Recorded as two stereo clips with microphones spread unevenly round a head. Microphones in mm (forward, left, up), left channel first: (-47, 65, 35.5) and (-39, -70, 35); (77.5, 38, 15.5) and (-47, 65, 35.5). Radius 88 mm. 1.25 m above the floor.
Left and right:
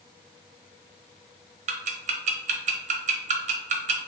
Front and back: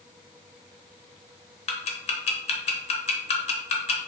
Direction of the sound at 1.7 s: 50° right.